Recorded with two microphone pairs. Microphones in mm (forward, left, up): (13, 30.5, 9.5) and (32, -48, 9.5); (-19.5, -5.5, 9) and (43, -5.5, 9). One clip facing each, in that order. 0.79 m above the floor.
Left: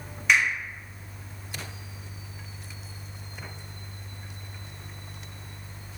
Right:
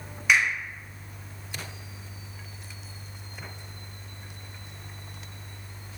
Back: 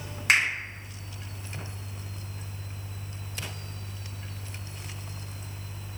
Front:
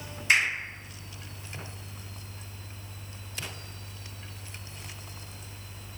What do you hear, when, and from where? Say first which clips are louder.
0.3 s a finger snap: even, back 1 dB; 165° right, 1.5 m